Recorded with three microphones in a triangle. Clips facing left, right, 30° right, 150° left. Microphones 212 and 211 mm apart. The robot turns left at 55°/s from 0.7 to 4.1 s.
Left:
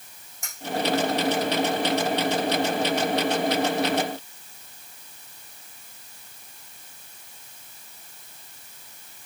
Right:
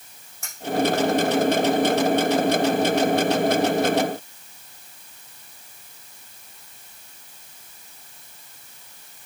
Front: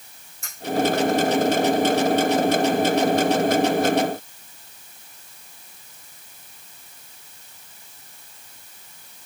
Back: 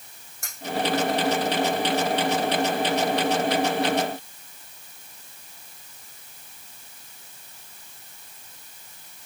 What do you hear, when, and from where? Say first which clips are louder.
0.4 s cutlery clinking: even, back 2 dB; 165° left, 4.5 m